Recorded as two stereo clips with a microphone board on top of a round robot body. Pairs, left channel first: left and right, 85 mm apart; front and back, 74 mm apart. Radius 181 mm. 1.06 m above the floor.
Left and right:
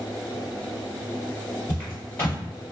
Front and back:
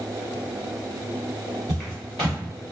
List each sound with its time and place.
1.7 s footsteps: 150° left, 1.4 m